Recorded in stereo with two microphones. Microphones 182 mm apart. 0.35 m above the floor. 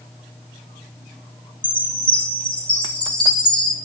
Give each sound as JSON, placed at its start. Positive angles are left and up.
{"t": 1.6, "sound": "a chime", "side_deg": 25, "distance_m": 2.5}